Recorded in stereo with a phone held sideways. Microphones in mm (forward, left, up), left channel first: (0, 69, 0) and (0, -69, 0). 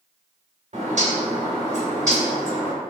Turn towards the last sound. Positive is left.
turn(degrees=-60)  # may be behind; listen again after turning